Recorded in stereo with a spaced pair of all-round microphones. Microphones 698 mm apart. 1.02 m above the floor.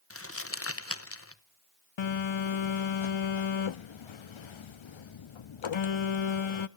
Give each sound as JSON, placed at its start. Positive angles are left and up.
{"t": 0.1, "sound": "crumpling", "side_deg": 20, "distance_m": 0.8}
{"t": 2.0, "sound": "a phone buzzing", "side_deg": 45, "distance_m": 0.5}